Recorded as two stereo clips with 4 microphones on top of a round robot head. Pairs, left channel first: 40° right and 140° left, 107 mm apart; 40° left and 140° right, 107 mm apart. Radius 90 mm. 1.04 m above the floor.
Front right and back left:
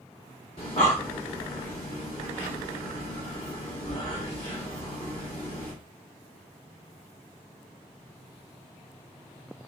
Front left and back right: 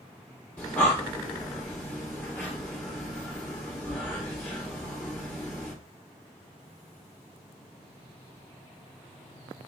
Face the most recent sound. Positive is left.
turn(degrees=-35)